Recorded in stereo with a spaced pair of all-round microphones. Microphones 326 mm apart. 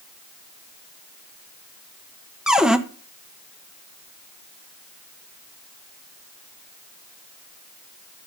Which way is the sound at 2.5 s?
Centre (ahead or behind).